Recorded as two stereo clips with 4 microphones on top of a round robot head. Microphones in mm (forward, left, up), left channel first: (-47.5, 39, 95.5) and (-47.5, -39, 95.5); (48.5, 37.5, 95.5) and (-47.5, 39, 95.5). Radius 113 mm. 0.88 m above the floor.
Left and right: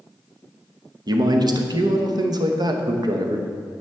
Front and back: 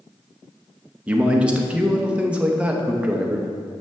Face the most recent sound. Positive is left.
turn(degrees=-105)